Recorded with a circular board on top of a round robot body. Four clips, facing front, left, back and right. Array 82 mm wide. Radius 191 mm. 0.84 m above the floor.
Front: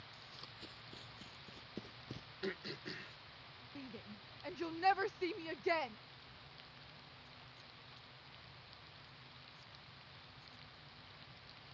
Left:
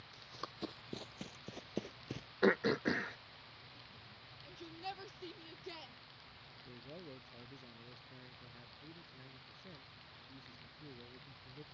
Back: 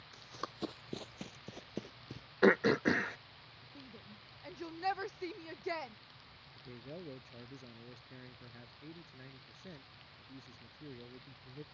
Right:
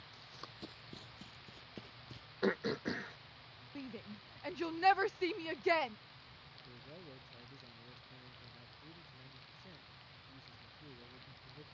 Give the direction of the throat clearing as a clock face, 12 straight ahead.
6 o'clock.